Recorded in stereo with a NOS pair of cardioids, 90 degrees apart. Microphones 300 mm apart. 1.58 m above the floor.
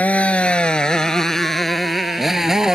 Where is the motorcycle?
5° left; by 2.8 s straight ahead.